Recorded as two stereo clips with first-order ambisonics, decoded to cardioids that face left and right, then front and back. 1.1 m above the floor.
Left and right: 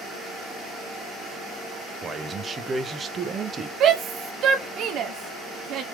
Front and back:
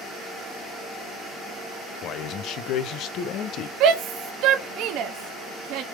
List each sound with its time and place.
2.0 s a man speaking: 25° right, 0.6 m
3.8 s a shout: 140° right, 0.6 m